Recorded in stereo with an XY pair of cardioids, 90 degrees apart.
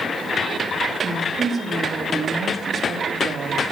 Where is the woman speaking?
50° right, 3 m.